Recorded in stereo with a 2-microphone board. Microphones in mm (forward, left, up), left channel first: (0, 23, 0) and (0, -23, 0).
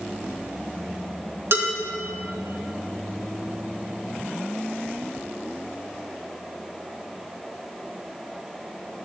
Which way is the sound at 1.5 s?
65° right (ahead or behind).